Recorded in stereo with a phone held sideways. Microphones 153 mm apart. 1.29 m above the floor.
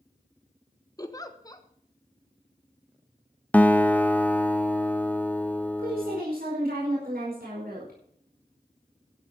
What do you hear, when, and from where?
1.0 s a giggle: 25° left (ahead or behind), 1.3 m
3.5 s a guitar: 10° left (ahead or behind), 0.8 m
5.8 s a woman speaking: 80° right, 5 m